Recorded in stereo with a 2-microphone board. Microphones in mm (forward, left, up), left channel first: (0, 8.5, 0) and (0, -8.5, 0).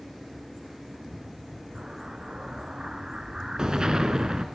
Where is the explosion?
50° right (ahead or behind), 3 m.